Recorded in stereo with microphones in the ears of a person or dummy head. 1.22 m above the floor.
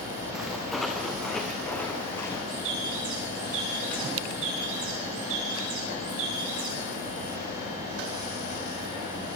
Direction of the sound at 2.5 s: 90° right.